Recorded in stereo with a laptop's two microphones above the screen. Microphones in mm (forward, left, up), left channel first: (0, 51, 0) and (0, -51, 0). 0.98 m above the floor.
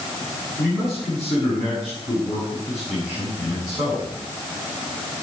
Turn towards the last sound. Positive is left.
turn(degrees=-10)  # may be behind; listen again after turning